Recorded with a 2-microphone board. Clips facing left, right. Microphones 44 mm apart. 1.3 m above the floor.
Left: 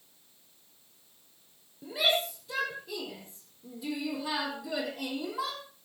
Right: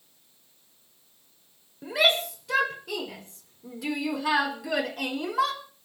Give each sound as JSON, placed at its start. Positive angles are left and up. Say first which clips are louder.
{"t": 1.8, "sound": "a shout", "louder": "right 5 dB", "side_deg": -90, "distance_m": 5.5}